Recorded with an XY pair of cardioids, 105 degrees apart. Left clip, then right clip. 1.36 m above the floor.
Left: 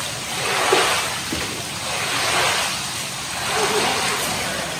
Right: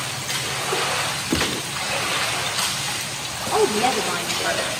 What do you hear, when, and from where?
1.3 s a gunshot: 40° right, 1.1 m
3.5 s a woman speaking: 60° right, 5 m